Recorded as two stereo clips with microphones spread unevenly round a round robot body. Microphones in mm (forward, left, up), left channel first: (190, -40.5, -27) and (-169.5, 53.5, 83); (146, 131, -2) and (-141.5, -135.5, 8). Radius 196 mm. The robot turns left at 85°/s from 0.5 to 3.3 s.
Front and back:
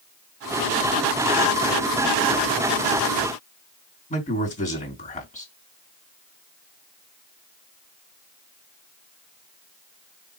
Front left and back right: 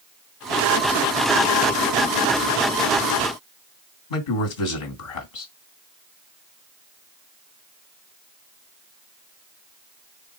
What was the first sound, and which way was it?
A man speaking, 50° left.